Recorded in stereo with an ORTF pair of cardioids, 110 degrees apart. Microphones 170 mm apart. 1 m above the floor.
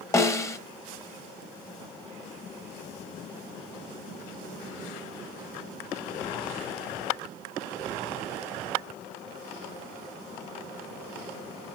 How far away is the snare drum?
About 0.7 m.